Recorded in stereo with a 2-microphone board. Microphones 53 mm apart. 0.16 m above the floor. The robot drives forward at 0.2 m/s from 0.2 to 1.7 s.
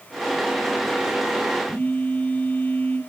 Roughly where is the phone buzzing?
Left.